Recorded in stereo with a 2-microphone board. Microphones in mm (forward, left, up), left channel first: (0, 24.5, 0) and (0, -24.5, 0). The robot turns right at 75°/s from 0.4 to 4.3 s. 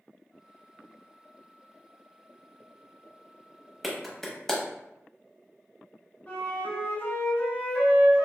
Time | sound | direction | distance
3.8 | a clap | centre (ahead or behind) | 0.8 m
6.3 | a flute | 40° left (ahead or behind) | 1.8 m